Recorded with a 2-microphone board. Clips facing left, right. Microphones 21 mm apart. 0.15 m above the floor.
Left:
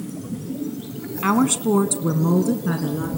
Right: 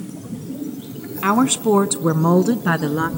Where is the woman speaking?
5° right (ahead or behind), 1.1 m; by 3.1 s 50° right (ahead or behind), 1.6 m.